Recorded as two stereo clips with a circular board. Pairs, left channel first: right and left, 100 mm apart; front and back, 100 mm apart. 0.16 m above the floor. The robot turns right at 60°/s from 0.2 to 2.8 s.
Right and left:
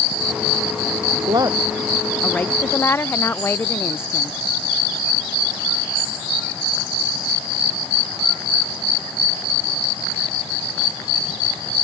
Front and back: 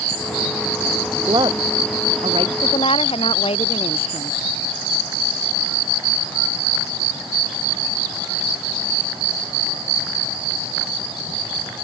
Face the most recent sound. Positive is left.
turn(degrees=-25)